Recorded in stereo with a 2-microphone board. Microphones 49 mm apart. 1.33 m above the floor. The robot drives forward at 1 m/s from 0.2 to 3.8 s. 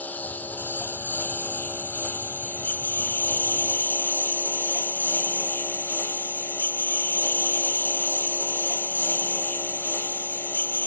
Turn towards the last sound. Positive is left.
turn(degrees=45)  # may be behind; listen again after turning